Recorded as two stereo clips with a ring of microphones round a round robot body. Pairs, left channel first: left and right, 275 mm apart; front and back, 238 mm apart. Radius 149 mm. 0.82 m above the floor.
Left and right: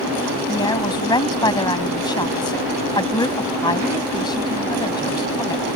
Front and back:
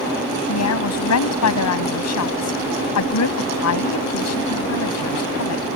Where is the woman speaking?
15° left.